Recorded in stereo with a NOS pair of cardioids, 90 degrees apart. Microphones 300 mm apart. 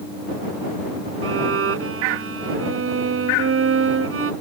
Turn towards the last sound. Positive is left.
turn(degrees=-45)